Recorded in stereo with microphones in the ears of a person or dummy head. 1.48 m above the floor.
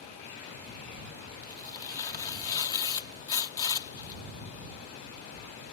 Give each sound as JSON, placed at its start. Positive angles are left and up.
{"t": 1.4, "sound": "tearing paper", "side_deg": 20}